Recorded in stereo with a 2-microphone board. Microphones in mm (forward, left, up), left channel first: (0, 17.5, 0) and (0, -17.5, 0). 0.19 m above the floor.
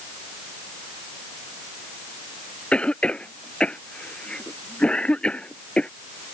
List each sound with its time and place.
2.7 s a cough: 30° left (ahead or behind)